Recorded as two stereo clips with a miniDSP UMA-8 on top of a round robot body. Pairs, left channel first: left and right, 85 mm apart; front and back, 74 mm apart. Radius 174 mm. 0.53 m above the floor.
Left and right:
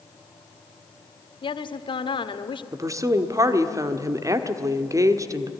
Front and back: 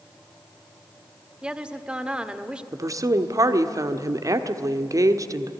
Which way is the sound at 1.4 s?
105° left.